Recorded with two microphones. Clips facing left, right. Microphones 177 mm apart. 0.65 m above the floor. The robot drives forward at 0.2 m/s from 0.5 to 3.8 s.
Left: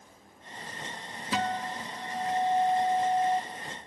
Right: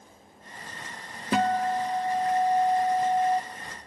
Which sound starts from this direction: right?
A guitar, at 1.3 s.